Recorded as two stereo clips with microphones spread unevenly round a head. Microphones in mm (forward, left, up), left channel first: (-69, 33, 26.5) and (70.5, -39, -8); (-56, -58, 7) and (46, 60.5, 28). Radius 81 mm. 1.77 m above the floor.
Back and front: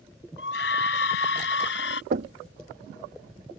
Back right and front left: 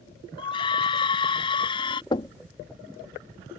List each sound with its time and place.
0.4 s a scream: 165° left
2.1 s knocking: 65° right